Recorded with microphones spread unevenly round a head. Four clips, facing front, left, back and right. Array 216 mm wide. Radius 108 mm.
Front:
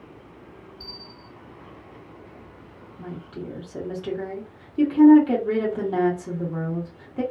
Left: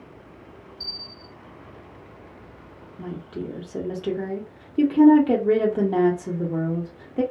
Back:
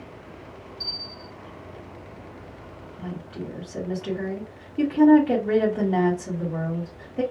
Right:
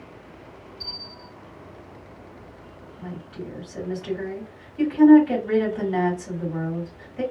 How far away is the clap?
I don't hear a clap.